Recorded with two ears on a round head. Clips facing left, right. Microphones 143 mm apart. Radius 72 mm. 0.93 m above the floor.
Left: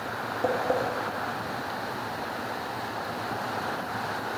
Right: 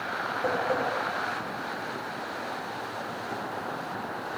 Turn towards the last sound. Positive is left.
turn(degrees=30)  # may be behind; listen again after turning